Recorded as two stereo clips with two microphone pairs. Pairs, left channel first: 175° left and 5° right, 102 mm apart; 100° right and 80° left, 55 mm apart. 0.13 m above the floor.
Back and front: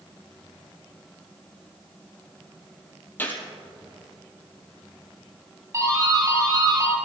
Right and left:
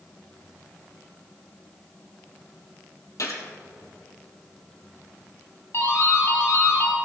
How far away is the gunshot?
About 2 m.